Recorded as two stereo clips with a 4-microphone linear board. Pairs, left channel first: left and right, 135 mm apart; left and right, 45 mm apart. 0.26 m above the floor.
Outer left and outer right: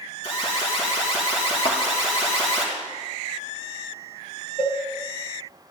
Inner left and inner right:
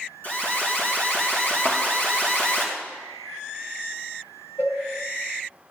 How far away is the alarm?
About 3 m.